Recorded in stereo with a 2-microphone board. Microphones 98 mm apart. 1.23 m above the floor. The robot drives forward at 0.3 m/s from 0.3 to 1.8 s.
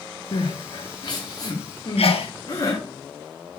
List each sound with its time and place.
0.3 s crying: 55° left (ahead or behind), 0.9 m; by 2.8 s 40° left (ahead or behind), 1.2 m
2.0 s a sneeze: 80° left, 0.8 m